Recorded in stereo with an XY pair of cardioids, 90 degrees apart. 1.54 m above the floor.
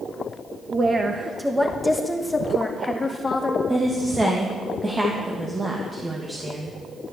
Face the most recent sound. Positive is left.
turn(degrees=-20)